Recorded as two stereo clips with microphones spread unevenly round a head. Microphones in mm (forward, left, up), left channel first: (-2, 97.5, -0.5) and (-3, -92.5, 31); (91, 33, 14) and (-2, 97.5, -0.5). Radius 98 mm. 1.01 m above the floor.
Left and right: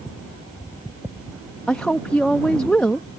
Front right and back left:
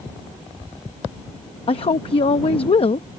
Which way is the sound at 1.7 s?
5° left.